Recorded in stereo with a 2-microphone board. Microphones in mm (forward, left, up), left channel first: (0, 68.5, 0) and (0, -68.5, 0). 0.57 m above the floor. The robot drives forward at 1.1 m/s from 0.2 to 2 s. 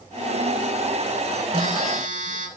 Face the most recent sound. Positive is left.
turn(degrees=-60)  # may be behind; listen again after turning